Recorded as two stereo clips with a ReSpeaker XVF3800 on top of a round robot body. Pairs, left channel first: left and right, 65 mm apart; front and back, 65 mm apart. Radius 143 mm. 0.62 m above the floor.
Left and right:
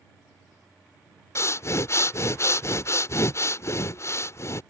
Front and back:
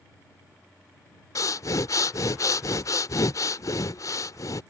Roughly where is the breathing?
Ahead left.